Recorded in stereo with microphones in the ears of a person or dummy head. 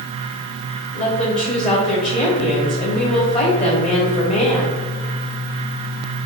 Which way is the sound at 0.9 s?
35° left (ahead or behind).